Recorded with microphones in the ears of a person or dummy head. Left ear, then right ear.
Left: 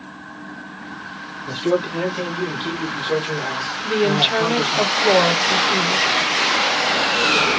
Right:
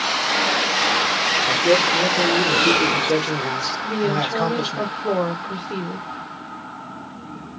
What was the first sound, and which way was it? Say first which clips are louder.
A man speaking: right 1 dB; 75° right (ahead or behind).